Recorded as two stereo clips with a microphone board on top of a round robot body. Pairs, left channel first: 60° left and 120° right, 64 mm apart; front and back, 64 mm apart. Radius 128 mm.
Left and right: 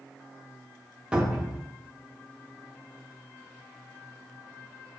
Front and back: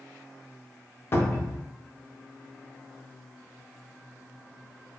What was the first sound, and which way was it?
A cupboard door, 45° right.